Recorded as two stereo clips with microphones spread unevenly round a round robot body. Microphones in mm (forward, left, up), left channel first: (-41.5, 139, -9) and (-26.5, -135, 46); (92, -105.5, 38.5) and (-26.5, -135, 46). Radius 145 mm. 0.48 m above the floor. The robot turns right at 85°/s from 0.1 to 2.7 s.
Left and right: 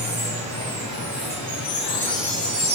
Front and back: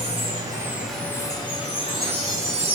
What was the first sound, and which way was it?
Running water, 145° right.